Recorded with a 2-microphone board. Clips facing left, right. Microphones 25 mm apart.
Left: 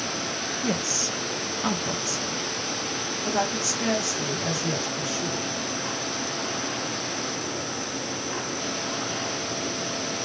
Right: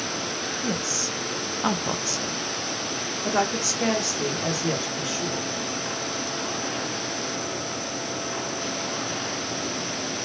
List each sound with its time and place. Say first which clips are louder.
0.6 s a woman speaking: left 2 dB; 15° left (ahead or behind), 0.7 m; by 5.5 s 35° right (ahead or behind), 2.5 m